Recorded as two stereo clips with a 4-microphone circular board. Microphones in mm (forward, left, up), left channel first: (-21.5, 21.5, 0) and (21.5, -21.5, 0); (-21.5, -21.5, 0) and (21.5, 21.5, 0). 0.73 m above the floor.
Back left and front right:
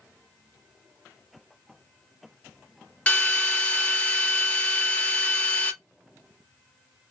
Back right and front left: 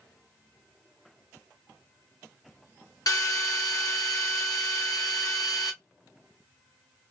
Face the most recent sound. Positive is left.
turn(degrees=-155)